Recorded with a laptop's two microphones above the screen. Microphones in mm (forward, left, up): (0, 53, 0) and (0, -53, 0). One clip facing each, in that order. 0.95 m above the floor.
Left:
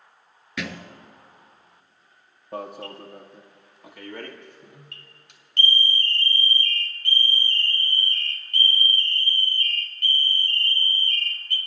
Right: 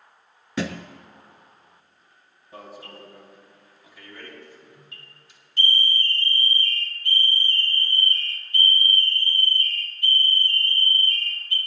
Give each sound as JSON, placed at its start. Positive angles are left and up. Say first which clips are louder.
{"t": 0.6, "sound": "a thud", "louder": "right 5 dB", "side_deg": -35, "distance_m": 1.0}
{"t": 2.5, "sound": "an alarm", "louder": "left 7 dB", "side_deg": 65, "distance_m": 1.6}